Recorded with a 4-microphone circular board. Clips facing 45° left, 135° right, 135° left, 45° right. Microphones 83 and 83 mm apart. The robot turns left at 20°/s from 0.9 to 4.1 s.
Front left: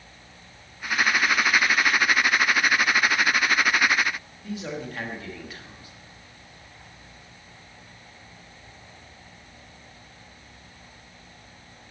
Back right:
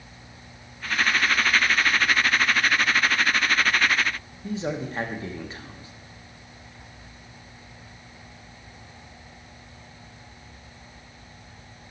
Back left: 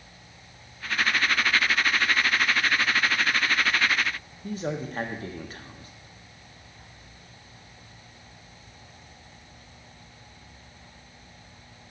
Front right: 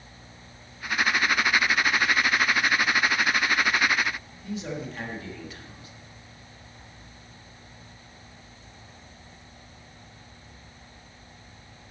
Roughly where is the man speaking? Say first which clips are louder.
Back right 4 dB, back left 3 dB; behind.